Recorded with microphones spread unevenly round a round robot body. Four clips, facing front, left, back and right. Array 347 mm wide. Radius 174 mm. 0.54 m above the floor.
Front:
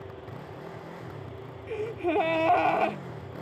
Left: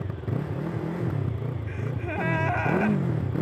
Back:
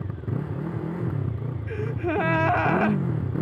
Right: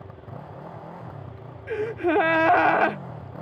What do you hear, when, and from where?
0.0 s a motorcycle: 145° left
1.7 s a gasp: 90° right